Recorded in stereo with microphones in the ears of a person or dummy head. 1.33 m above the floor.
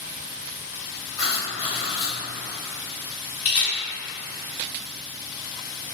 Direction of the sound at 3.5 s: 20° left (ahead or behind).